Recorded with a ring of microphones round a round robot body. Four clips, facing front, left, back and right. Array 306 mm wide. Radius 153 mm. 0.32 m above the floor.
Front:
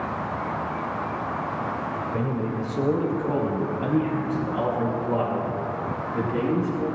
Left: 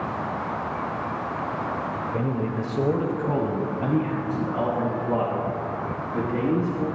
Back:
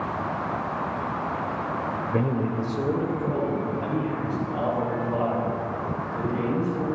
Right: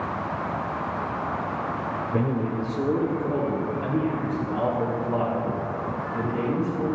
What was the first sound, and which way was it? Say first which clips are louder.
A man speaking: right 2 dB, back 4 dB; 155° right.